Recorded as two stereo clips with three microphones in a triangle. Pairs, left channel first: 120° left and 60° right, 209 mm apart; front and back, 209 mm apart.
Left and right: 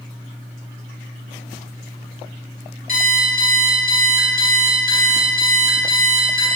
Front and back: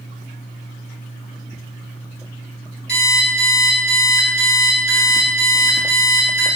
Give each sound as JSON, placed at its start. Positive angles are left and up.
{"t": 2.9, "sound": "an alarm clock", "azimuth_deg": -40, "distance_m": 1.9}